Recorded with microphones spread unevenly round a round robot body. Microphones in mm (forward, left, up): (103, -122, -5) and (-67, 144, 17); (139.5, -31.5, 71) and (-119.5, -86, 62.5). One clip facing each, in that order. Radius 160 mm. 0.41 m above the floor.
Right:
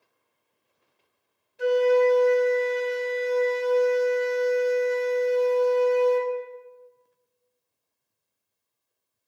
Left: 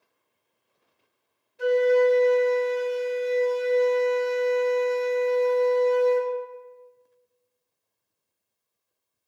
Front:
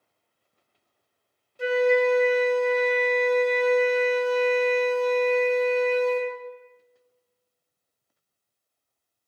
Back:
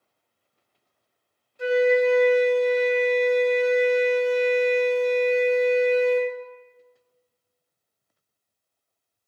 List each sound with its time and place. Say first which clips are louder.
1.6 s a flute: even, back 2 dB; 50° right, 0.7 m